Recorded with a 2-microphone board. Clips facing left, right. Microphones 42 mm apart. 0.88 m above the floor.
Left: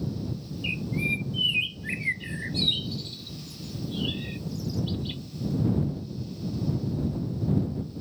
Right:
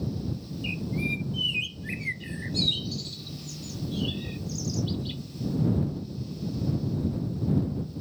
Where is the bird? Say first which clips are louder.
Left 2 dB; 15° left (ahead or behind).